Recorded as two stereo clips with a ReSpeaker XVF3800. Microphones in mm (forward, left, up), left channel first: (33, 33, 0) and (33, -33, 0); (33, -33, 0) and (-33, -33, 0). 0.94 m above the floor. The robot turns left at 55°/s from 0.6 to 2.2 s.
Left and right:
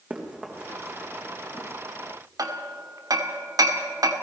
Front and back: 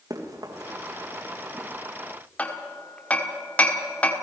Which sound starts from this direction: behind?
Running footsteps, at 0.1 s.